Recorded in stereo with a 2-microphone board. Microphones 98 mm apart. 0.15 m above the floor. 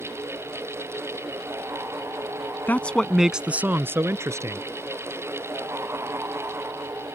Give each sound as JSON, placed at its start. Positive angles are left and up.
{"t": 2.7, "sound": "a man speaking", "side_deg": 20}